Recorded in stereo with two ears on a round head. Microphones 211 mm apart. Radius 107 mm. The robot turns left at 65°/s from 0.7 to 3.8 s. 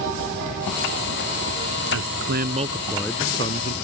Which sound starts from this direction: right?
A man speaking, at 1.9 s.